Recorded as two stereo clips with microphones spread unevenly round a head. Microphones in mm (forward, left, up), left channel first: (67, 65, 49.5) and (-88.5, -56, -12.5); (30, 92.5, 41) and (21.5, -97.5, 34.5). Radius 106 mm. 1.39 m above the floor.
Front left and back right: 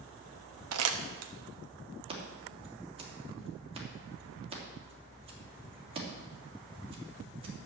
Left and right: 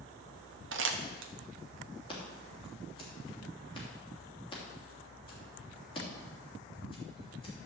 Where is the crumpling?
125° right, 1.1 m.